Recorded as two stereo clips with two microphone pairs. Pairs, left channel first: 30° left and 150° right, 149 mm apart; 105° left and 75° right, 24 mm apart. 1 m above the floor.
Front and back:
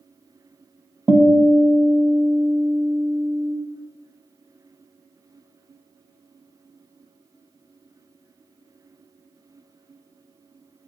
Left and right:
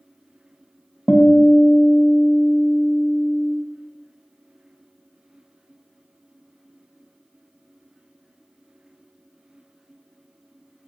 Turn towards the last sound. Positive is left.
turn(degrees=130)